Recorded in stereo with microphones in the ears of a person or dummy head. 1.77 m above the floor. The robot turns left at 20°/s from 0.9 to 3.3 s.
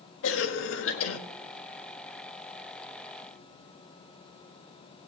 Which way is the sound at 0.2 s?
75° left (ahead or behind).